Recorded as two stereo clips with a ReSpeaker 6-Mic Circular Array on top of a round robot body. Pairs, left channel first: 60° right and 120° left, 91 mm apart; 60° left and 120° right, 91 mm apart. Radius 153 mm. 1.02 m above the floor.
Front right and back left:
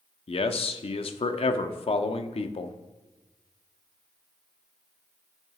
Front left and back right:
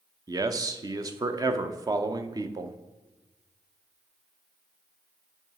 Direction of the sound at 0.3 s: 70° right.